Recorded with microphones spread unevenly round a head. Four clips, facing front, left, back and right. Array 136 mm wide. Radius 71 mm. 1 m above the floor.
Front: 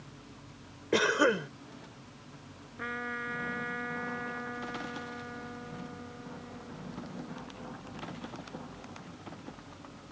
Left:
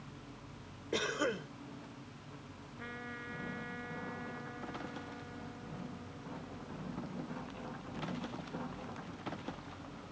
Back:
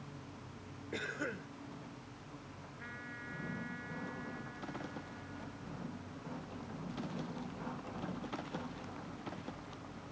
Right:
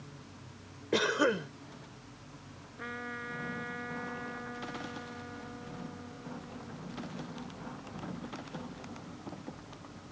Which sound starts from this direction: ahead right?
A cough, at 0.9 s.